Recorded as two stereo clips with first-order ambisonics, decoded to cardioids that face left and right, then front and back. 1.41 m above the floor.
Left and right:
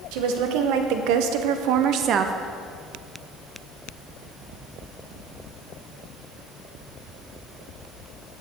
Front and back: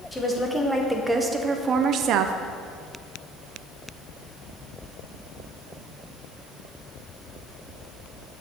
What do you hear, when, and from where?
0.1 s a woman speaking: 85° right, 1.5 m; by 2.3 s 155° right, 0.6 m